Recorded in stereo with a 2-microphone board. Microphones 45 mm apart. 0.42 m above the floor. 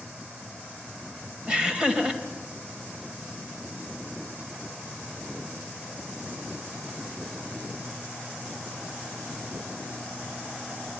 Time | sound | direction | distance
1.5 | laughter | 20° right (ahead or behind) | 2.5 m